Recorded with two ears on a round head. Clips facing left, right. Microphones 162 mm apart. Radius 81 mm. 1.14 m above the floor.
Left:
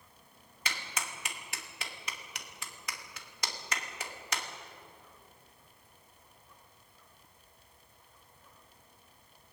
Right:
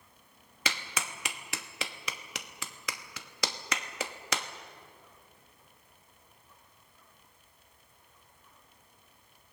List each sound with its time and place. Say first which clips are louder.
0.7 s a clap: right 3 dB; 60° right (ahead or behind), 1.2 m